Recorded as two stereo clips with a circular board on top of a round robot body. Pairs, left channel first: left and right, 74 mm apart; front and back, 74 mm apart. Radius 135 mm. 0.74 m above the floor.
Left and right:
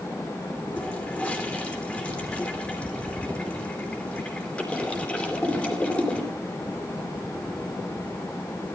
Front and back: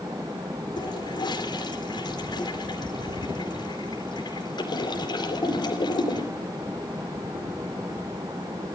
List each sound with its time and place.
0.8 s a toilet flushing: 15° left, 3.5 m